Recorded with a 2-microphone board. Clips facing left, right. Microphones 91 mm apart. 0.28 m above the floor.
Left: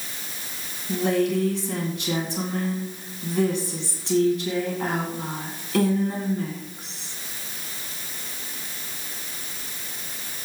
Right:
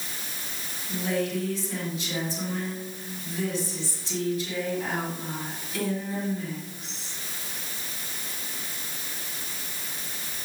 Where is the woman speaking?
65° left (ahead or behind), 2.5 m.